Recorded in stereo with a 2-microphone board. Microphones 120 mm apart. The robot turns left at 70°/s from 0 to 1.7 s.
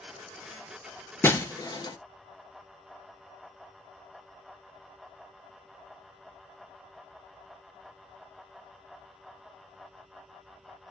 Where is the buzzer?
I don't hear a buzzer.